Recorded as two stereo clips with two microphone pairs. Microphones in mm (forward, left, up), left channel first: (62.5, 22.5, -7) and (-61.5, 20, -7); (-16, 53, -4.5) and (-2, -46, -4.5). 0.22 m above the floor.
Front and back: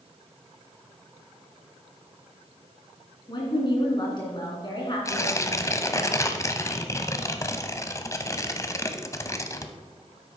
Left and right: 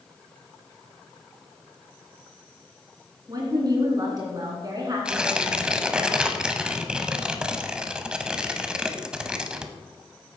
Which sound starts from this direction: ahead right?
A woman speaking, at 3.3 s.